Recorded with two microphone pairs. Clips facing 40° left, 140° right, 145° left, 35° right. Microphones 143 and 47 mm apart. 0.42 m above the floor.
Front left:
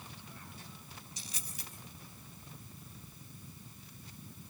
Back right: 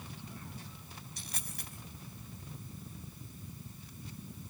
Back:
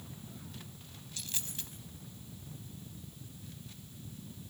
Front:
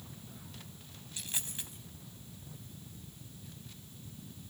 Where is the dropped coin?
105° right, 4.5 m.